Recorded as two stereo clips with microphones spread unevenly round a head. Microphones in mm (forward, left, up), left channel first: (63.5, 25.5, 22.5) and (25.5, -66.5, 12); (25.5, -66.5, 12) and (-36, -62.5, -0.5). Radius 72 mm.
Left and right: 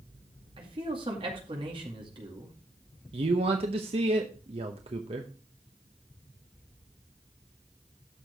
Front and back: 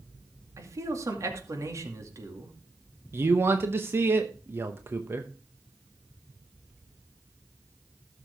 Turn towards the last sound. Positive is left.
turn(degrees=-140)